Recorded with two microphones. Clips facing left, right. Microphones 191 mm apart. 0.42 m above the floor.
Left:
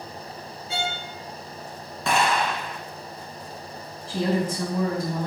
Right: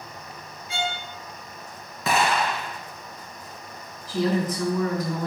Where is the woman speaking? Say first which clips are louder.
Right 1 dB; 30° left (ahead or behind), 3.5 m.